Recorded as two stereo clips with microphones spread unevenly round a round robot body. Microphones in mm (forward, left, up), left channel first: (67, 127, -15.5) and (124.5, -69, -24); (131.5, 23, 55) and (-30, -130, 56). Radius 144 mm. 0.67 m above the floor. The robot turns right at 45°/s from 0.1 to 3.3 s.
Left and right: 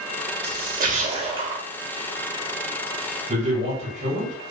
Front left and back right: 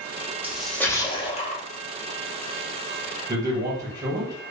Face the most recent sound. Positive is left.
turn(degrees=-75)